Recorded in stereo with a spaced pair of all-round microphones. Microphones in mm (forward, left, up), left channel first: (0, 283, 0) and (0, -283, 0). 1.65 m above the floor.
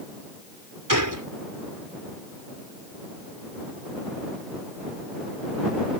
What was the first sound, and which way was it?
A gunshot, 30° right (ahead or behind).